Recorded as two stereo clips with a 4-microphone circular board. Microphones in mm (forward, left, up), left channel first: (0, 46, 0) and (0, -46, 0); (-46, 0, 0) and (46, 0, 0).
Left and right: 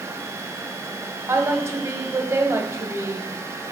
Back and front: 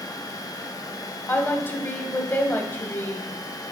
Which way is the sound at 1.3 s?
130° right.